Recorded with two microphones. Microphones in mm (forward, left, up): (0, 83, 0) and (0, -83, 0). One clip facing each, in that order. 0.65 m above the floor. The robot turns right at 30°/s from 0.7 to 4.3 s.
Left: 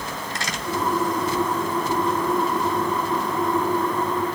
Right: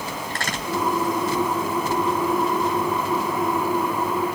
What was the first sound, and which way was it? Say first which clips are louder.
A crack: right 1 dB; 60° right (ahead or behind).